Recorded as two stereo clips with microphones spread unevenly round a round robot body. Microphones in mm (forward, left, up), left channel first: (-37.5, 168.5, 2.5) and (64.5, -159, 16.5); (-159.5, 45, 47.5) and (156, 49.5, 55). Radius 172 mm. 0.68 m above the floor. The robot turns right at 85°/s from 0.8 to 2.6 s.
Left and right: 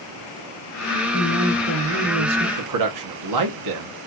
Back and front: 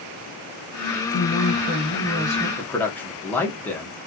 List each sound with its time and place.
1.1 s a woman speaking: 150° left, 1.9 m; by 2.5 s 100° right, 1.9 m
2.6 s a man speaking: 100° right, 1.0 m; by 4.0 s 95° right, 1.0 m